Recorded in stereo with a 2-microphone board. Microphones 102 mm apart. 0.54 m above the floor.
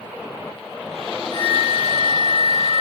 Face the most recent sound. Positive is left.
turn(degrees=-75)  # may be behind; listen again after turning